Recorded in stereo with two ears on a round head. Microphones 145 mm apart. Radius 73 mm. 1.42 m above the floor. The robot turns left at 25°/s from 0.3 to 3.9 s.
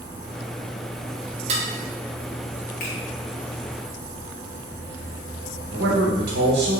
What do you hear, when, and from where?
1.5 s dishes clattering: 40° right (ahead or behind), 0.6 m
2.8 s a finger snap: 60° left (ahead or behind), 1.1 m
5.7 s a man speaking: 70° right (ahead or behind), 0.8 m